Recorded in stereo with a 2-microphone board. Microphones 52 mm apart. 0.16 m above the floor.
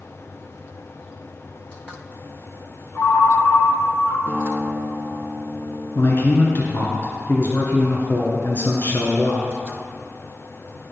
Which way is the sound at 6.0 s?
45° left (ahead or behind).